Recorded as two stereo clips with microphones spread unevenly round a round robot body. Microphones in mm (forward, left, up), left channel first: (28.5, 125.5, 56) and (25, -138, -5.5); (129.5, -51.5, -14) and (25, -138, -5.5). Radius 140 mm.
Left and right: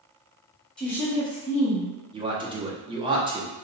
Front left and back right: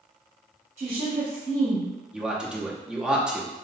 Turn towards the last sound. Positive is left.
turn(degrees=-55)